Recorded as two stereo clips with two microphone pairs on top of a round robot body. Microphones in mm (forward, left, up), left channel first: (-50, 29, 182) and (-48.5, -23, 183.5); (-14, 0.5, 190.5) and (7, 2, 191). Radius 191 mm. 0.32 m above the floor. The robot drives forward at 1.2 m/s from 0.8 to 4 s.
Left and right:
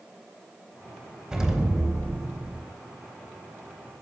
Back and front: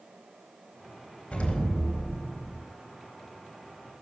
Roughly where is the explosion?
Behind.